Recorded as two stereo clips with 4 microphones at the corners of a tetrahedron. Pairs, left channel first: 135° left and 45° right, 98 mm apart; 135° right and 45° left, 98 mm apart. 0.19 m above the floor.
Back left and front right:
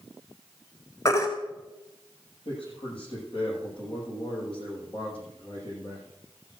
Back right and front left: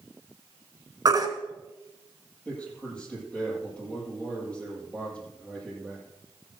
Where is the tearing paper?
I don't hear tearing paper.